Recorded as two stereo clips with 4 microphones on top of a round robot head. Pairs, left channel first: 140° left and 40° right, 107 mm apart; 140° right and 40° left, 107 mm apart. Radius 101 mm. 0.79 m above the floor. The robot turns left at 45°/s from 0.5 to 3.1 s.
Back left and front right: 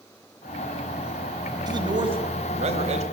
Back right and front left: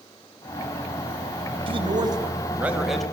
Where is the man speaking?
10° left, 4 m; by 3.0 s 55° right, 4 m.